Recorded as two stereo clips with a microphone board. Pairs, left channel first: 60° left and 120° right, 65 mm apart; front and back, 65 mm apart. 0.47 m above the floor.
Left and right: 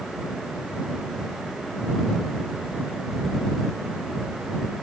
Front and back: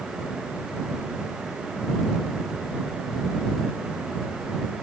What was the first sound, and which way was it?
Only background noise.